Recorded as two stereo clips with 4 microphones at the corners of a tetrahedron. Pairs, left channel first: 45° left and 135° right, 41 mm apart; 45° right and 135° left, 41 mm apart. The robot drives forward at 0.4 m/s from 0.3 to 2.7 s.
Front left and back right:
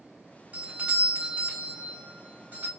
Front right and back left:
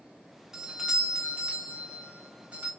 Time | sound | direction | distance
0.5 | a doorbell | 155° right | 0.7 m